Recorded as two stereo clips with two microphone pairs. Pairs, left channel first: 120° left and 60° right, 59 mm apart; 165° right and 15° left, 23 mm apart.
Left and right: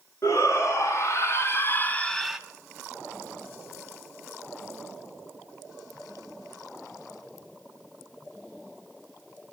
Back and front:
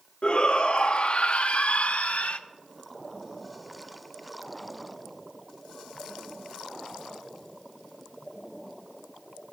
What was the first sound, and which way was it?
A shout, 150° left.